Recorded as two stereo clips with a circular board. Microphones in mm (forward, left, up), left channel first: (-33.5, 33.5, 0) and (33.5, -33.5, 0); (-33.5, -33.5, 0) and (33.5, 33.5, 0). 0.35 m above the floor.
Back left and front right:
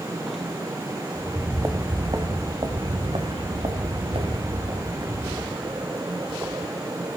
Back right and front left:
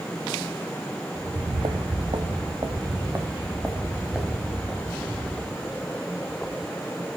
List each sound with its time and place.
1.1 s footsteps: 40° left, 1.4 m; by 5.8 s 50° right, 3 m